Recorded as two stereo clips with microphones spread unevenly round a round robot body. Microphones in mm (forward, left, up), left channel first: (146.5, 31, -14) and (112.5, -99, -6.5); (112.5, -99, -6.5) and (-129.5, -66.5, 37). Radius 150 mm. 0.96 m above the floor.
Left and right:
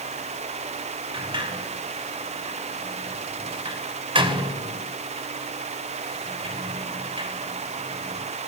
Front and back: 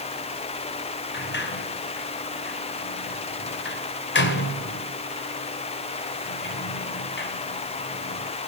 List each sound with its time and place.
1.1 s a sliding door: 50° right, 2.5 m